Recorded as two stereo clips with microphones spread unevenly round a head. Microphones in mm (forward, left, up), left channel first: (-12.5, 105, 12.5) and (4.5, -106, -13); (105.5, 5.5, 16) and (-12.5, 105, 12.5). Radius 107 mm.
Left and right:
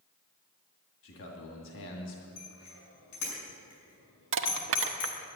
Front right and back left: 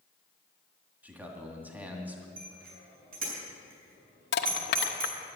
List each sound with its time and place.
1.0 s a man speaking: 60° left, 2 m
2.4 s a bicycle bell: 110° left, 6.5 m
4.3 s crushing: 60° right, 1.0 m